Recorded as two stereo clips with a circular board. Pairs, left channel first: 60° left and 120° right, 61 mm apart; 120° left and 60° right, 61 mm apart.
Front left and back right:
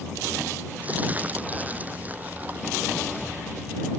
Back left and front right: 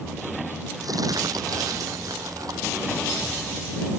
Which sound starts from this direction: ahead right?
Crumpling, at 0.8 s.